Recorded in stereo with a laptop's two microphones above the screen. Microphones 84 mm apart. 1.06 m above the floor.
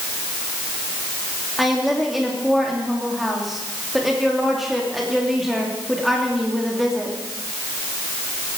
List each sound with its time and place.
1.6 s a woman speaking: centre (ahead or behind), 2.5 m